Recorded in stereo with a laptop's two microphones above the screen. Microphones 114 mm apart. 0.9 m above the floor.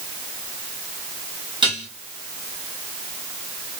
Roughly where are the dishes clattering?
Right.